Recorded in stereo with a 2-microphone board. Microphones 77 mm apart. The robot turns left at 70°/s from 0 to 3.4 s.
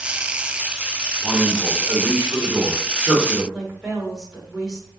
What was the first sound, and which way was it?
A man speaking, 20° right.